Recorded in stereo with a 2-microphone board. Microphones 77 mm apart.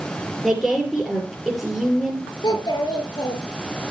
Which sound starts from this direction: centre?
A woman speaking, at 0.4 s.